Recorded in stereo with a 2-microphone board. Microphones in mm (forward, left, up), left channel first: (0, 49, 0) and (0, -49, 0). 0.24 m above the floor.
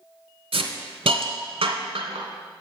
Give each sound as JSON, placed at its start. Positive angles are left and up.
{"t": 0.5, "sound": "a hiss", "side_deg": -70, "distance_m": 1.0}